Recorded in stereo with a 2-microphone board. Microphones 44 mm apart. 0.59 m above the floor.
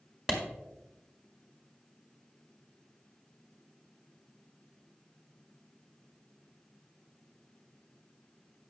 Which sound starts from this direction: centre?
A clap, at 0.3 s.